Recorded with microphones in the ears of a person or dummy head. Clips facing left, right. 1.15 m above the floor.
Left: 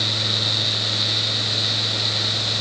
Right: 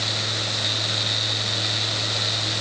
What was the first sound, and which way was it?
Only background noise.